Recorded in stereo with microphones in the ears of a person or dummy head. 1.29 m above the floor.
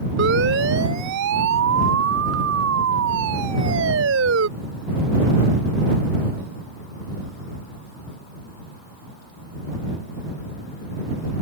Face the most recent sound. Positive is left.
turn(degrees=-70)  # may be behind; listen again after turning